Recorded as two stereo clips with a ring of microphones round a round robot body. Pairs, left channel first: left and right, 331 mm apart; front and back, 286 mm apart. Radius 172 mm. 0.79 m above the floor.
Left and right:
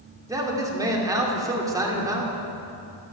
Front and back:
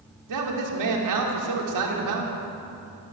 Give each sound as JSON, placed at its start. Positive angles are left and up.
{"t": 0.3, "sound": "a man speaking", "azimuth_deg": -170, "distance_m": 2.5}